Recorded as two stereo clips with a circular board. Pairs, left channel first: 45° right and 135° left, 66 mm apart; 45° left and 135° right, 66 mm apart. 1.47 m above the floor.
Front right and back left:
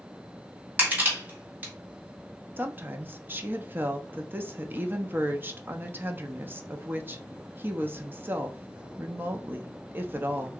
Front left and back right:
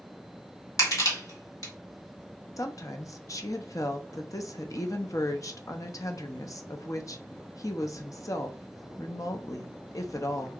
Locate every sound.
0.8 s crushing: 70° left, 2 m
2.6 s a woman speaking: 75° left, 0.6 m